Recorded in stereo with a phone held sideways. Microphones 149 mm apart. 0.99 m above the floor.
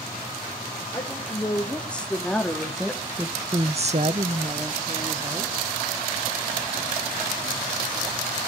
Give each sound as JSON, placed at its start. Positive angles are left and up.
{"t": 0.9, "sound": "a woman speaking", "side_deg": 10, "distance_m": 3.5}